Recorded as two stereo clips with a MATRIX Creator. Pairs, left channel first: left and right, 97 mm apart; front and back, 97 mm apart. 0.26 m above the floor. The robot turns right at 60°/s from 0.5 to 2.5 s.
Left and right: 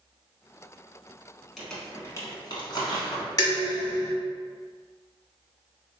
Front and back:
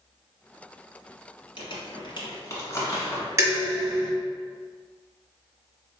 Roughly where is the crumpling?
Ahead.